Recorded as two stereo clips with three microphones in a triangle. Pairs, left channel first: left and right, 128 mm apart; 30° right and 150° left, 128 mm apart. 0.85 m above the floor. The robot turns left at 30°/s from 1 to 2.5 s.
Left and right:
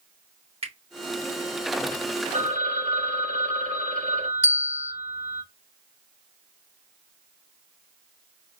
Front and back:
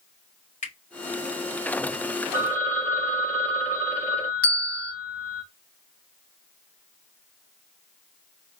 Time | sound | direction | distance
0.6 | a finger snap | 50° right | 2.5 m
2.3 | a phone ringing | 100° right | 2.5 m
4.4 | a bell | 110° right | 2.5 m